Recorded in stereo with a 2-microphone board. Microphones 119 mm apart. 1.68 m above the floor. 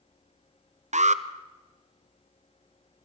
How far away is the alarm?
About 0.6 m.